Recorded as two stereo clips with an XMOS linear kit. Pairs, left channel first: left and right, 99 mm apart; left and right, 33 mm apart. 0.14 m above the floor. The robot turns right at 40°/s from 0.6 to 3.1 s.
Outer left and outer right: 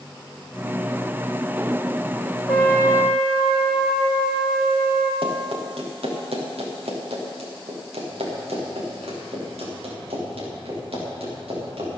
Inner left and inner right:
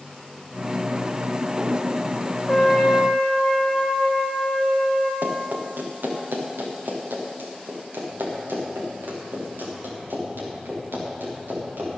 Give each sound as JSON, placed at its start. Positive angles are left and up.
{"t": 2.5, "sound": "a trumpet", "side_deg": 15, "distance_m": 3.0}
{"t": 5.2, "sound": "running footsteps", "side_deg": -65, "distance_m": 4.0}